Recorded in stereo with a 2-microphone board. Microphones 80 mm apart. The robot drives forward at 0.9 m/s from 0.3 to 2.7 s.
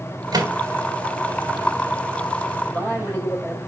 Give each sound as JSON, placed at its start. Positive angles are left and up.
{"t": 0.3, "sound": "a microwave", "side_deg": -55, "distance_m": 2.5}
{"t": 2.6, "sound": "a man speaking", "side_deg": 20, "distance_m": 5.5}